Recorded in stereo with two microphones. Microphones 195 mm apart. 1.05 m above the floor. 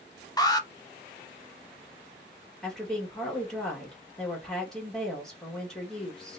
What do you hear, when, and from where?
0.4 s an alarm: 20° left (ahead or behind), 0.6 m
2.6 s a woman speaking: 5° left (ahead or behind), 1.6 m